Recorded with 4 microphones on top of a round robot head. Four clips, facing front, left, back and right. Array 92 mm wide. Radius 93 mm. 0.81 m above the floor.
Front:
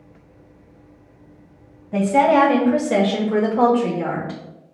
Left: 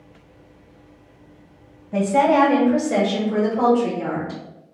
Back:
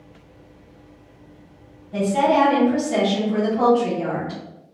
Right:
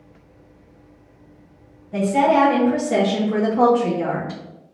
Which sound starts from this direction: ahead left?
A woman speaking, at 1.9 s.